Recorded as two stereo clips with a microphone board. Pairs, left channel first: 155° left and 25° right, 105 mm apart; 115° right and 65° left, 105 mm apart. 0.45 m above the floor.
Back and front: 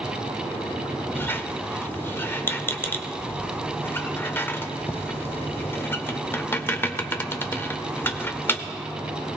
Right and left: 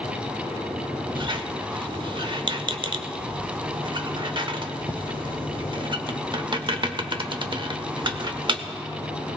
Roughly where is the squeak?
Left.